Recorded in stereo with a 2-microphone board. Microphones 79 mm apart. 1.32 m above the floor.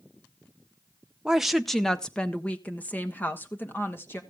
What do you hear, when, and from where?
1.2 s a woman speaking: 10° right (ahead or behind), 0.8 m; by 4.2 s 30° left (ahead or behind), 2 m